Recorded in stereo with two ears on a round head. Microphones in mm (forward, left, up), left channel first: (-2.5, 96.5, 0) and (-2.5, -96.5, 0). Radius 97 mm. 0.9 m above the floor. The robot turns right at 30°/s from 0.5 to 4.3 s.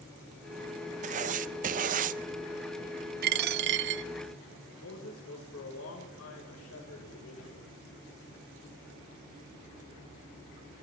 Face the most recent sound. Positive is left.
turn(degrees=75)  # may be behind; listen again after turning